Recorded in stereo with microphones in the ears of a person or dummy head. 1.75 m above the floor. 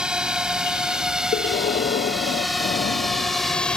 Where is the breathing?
35° left (ahead or behind).